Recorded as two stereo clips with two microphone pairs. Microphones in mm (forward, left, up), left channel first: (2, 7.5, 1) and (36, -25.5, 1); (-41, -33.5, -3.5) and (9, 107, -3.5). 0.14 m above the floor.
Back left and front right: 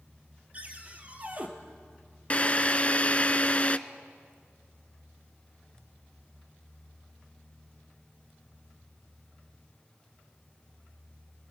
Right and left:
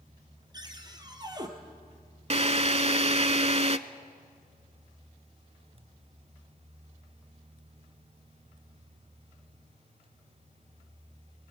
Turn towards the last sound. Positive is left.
turn(degrees=85)